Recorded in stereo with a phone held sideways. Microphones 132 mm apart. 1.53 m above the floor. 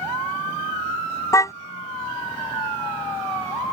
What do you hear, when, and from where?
1.3 s a car horn: 25° left (ahead or behind)